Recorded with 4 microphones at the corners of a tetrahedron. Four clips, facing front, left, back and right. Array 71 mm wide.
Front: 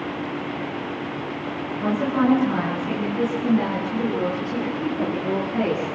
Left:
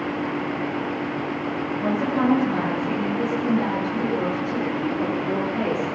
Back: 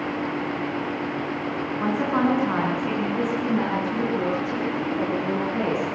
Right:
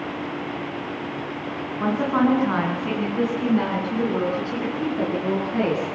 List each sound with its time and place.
1.8 s a woman speaking: 125° right, 9.5 m; by 6.0 s 100° right, 13 m